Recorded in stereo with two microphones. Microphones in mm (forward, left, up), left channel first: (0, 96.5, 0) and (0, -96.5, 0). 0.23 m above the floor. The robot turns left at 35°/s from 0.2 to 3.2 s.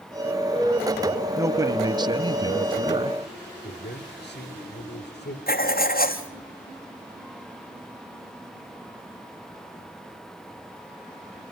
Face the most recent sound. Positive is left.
turn(degrees=50)  # may be behind; listen again after turning